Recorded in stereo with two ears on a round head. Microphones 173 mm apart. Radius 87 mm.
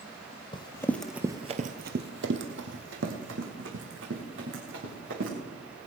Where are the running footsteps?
25° left (ahead or behind), 1.6 m; by 5.3 s 65° right (ahead or behind), 6 m.